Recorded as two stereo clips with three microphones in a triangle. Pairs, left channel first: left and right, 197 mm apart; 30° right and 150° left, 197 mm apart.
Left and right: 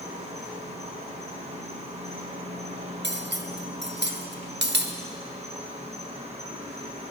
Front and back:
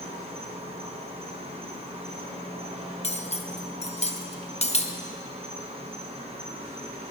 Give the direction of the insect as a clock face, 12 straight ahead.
5 o'clock.